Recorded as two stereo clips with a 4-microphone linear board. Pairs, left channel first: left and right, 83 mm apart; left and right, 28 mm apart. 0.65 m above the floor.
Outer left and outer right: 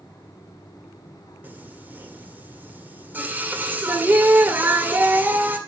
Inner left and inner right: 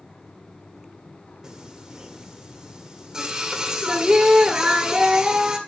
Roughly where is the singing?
Right.